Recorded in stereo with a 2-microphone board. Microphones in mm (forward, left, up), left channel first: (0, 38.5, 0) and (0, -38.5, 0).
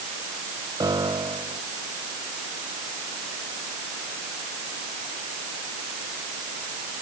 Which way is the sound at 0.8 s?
60° right (ahead or behind).